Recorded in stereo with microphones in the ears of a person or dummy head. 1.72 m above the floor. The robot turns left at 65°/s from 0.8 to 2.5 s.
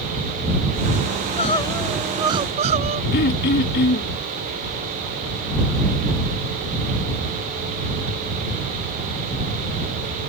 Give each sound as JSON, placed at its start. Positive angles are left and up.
{"t": 1.1, "sound": "crying", "azimuth_deg": 50}
{"t": 3.1, "sound": "throat clearing", "side_deg": 50}